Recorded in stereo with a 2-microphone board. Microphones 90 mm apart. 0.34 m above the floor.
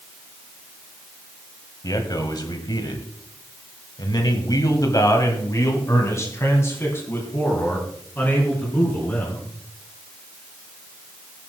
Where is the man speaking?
45° left (ahead or behind), 2.0 m; by 9.4 s 20° left (ahead or behind), 4.5 m.